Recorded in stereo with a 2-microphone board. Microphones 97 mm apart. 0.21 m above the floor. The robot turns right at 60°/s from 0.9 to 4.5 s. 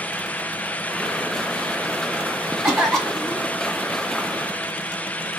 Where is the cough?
15° right, 1.5 m; by 3.5 s 40° left, 1.5 m.